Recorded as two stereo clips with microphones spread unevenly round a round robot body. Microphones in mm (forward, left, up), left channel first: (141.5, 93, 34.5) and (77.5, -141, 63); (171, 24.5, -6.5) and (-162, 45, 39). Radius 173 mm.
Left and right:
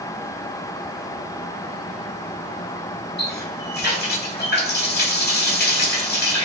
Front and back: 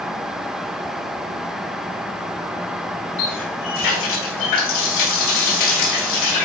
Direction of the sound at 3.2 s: 25° left.